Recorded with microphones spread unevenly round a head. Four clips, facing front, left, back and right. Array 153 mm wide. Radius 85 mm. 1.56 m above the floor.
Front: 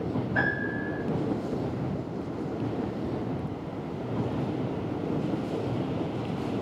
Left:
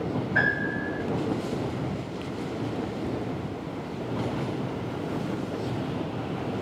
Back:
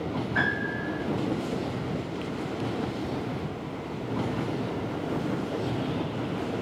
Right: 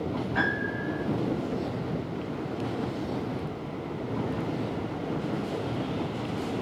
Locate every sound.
0.3 s a piano: 35° left, 5 m